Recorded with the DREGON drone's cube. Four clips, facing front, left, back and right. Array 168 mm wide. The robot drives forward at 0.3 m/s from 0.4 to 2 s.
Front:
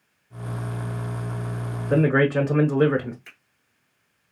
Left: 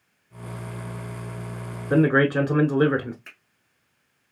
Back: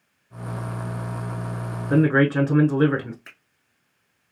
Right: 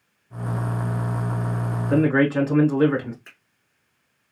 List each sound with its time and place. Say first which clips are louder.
1.9 s a man speaking: even, back 1 dB; 115° left, 1.2 m
3.2 s a finger snap: left 1 dB, back 2 dB; 175° left, 1.8 m